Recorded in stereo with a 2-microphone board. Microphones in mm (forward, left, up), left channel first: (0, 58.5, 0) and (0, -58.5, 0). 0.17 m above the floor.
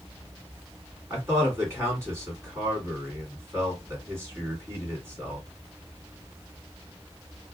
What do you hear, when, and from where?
1.1 s a man speaking: 25° right (ahead or behind), 2 m